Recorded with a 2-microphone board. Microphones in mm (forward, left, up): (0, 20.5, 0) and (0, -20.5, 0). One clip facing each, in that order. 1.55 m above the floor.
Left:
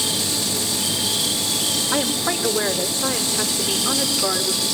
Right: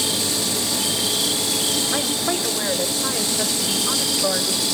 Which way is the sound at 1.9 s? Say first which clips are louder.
Left 1 dB; 70° left (ahead or behind).